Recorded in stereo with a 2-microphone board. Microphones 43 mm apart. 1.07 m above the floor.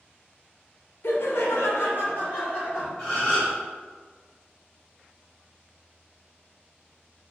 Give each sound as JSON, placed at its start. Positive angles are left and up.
{"t": 1.0, "sound": "laughter", "side_deg": 60, "distance_m": 0.7}
{"t": 3.0, "sound": "a gasp", "side_deg": 20, "distance_m": 1.5}